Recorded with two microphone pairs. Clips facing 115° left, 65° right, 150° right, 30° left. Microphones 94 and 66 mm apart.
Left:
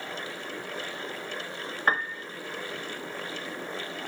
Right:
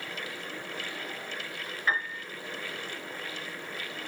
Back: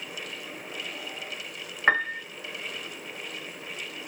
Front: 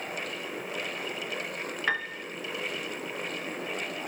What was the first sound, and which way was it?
A piano, 155° left.